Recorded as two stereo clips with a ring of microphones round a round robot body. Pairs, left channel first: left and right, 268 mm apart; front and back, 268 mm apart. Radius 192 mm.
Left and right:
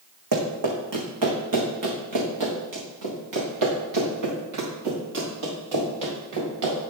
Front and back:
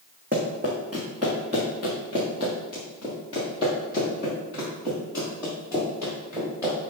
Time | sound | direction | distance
0.3 | running footsteps | 110° right | 2.5 m